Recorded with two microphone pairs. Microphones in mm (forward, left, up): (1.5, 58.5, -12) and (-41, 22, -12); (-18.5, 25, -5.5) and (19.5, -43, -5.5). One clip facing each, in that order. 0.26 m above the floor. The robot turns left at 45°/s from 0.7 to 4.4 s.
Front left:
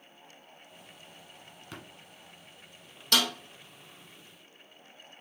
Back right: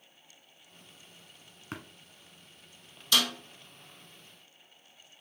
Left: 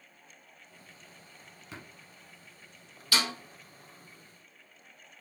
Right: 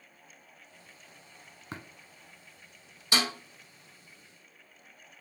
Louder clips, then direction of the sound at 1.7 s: Back right 4 dB, right 4 dB; 100° right.